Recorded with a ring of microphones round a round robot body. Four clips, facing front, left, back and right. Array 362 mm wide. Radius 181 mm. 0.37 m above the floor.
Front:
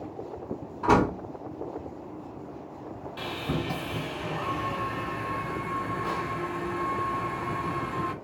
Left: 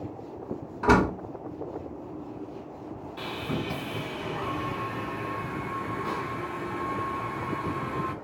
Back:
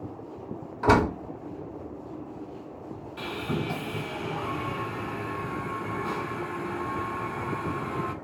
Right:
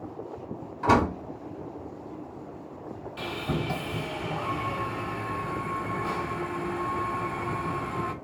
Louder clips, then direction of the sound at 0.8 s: Left 1 dB, back 1 dB; 165° left.